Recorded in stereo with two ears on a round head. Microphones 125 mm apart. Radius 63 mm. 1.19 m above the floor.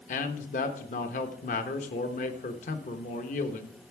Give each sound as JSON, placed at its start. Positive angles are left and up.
{"t": 0.1, "sound": "a man speaking", "side_deg": 60, "distance_m": 1.1}